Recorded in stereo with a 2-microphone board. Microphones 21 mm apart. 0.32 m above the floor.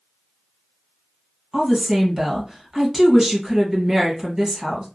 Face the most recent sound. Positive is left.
turn(degrees=-20)  # may be behind; listen again after turning